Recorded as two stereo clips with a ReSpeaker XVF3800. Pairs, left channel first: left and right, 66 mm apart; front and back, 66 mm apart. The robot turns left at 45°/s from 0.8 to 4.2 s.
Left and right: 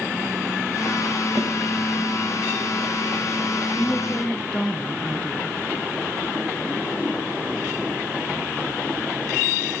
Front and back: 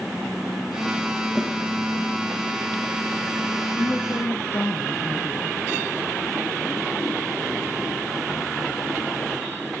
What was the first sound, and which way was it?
A snare drum, 100° right.